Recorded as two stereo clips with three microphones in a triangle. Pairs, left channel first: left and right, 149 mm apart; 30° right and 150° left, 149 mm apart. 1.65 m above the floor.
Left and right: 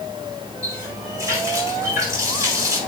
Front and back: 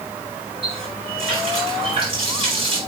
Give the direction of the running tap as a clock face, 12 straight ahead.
5 o'clock.